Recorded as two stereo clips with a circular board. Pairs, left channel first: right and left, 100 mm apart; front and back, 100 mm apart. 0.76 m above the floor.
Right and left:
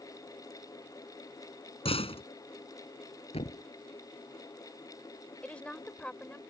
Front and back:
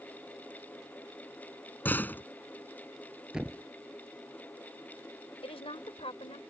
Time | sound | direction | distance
1.9 | a door slam | 70° right | ?
3.3 | a thud | 100° right | ?
5.4 | a woman speaking | 15° right | ?